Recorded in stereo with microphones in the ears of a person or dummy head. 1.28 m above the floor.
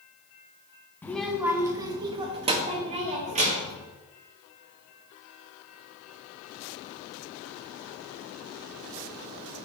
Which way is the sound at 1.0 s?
10° left (ahead or behind).